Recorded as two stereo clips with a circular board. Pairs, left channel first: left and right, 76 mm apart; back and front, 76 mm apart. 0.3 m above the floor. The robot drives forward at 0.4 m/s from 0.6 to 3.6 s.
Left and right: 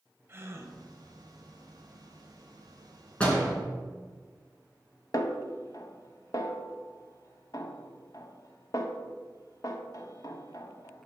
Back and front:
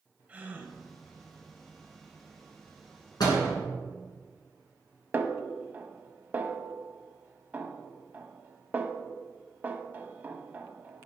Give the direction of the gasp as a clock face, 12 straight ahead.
2 o'clock.